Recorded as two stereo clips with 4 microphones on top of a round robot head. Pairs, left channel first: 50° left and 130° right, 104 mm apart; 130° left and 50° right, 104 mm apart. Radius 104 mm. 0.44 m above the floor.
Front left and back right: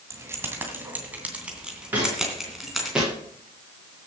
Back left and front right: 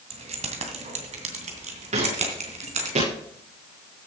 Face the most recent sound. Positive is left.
turn(degrees=-45)